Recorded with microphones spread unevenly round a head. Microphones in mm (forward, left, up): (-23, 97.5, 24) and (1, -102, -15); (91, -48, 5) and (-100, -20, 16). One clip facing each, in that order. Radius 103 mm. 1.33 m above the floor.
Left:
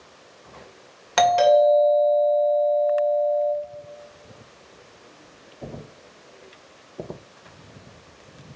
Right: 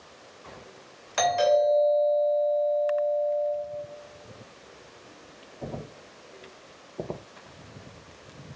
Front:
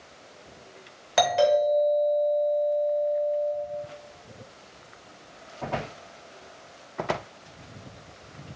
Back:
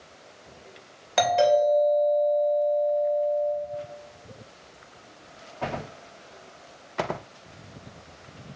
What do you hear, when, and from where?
1.2 s a doorbell: 75° left, 2.5 m